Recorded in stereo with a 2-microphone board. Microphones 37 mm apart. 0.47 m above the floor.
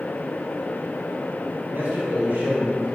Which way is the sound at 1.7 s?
60° right (ahead or behind).